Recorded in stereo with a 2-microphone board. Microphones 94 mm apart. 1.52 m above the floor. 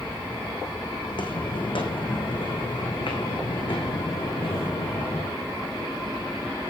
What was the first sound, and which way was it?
Footsteps, 60° left (ahead or behind).